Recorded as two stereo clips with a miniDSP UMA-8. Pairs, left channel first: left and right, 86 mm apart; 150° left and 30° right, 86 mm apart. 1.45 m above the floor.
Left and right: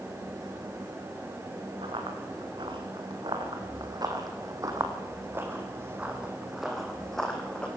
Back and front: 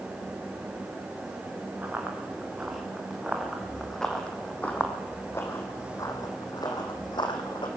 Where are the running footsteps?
105° right, 6 m; by 7.7 s 165° left, 4.5 m.